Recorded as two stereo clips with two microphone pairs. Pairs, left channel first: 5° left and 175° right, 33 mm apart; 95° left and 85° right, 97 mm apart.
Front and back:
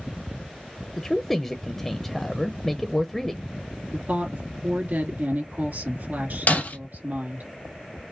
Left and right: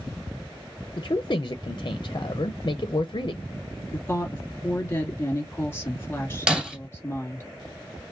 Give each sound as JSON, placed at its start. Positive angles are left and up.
{"t": 1.0, "sound": "a man speaking", "azimuth_deg": 85, "distance_m": 0.5}
{"t": 3.9, "sound": "a woman speaking", "azimuth_deg": 160, "distance_m": 1.8}
{"t": 6.5, "sound": "breaking glass", "azimuth_deg": -5, "distance_m": 2.0}